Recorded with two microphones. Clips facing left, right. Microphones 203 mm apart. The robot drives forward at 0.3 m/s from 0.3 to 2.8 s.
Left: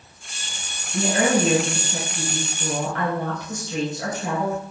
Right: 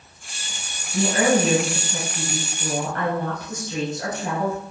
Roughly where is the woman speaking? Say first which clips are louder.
Right 1 dB; centre.